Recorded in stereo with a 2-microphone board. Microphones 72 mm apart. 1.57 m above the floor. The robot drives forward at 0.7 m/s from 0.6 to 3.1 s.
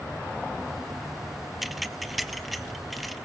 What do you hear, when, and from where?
1.6 s keys jangling: 5° right (ahead or behind), 0.6 m; by 3.2 s centre (ahead or behind), 1.6 m